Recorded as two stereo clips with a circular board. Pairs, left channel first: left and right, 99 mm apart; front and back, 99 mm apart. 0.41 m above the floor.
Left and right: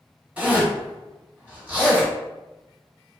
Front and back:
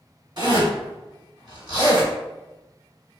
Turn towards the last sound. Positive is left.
turn(degrees=-165)